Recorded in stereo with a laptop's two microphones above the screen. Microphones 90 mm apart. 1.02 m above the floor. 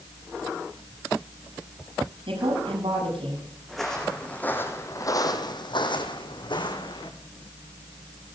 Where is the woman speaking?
80° right, 8.5 m.